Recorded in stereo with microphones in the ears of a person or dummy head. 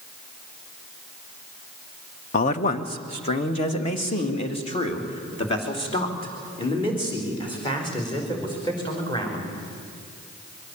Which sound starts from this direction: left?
A man speaking, at 2.3 s.